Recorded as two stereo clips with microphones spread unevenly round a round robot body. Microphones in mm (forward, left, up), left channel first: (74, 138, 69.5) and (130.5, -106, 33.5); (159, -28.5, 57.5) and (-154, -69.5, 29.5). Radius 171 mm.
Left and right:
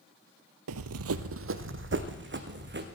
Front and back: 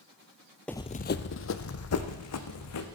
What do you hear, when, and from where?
0.7 s running footsteps: 75° right, 0.5 m; by 2.9 s 30° right, 2.5 m